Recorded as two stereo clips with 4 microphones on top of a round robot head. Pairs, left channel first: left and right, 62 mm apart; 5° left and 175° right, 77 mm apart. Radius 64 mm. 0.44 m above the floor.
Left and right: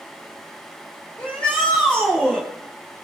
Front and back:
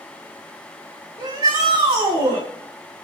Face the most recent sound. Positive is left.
turn(degrees=165)